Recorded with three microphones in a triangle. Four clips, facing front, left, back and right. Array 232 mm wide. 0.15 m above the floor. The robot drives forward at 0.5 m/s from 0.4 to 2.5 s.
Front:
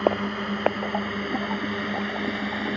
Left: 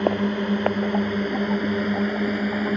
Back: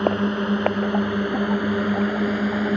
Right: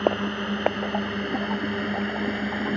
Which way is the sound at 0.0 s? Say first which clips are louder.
Left 2 dB, back 3 dB; 135° left.